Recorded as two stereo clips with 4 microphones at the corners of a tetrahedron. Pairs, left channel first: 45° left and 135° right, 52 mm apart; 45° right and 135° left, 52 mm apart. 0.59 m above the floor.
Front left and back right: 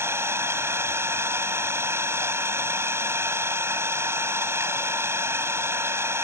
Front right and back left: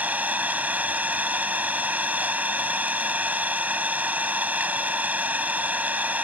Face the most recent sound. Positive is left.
turn(degrees=-165)